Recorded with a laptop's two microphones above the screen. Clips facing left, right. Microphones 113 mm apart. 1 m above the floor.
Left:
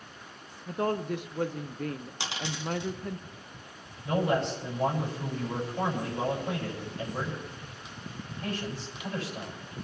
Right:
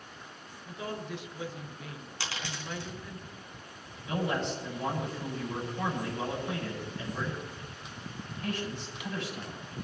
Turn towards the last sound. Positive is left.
turn(degrees=40)  # may be behind; listen again after turning